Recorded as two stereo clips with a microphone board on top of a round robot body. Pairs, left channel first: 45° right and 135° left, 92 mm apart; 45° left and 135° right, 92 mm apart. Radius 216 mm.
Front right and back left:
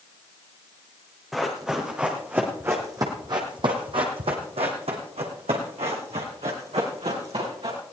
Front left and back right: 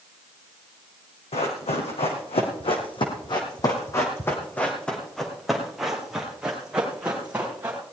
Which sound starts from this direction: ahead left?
Running footsteps, at 1.3 s.